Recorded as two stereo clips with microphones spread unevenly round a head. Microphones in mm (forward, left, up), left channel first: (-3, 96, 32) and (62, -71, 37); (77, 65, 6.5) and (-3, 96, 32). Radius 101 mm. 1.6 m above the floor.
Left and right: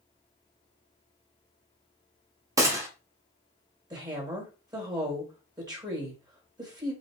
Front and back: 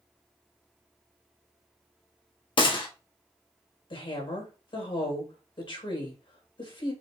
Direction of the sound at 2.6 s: 5° right.